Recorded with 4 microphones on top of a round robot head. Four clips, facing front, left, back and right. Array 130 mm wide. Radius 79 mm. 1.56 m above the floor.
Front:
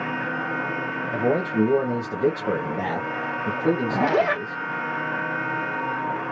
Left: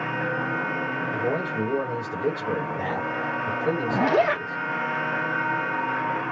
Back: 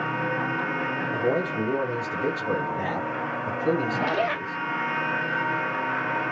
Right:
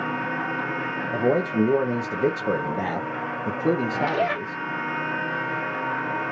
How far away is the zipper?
About 0.9 m.